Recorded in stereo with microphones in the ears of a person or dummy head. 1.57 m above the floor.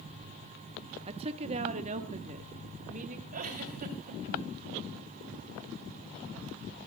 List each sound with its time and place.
1.1 s a woman speaking: 25° right (ahead or behind), 0.8 m; by 3.2 s 40° right (ahead or behind), 2 m
3.3 s a giggle: 45° right (ahead or behind), 3 m